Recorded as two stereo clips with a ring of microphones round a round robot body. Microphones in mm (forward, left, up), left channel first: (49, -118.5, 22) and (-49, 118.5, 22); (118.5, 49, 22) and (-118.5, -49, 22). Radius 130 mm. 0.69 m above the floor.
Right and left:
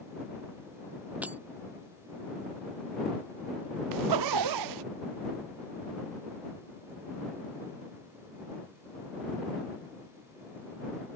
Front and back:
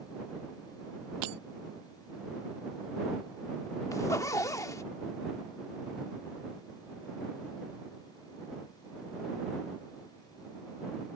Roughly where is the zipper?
Left.